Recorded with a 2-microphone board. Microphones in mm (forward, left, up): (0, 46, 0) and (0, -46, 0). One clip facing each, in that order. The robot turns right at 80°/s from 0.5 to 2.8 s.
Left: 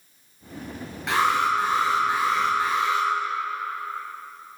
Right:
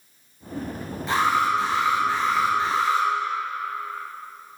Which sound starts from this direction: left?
An alarm, at 1.1 s.